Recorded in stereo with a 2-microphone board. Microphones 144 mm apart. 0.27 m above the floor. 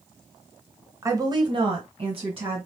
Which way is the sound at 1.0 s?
20° right (ahead or behind).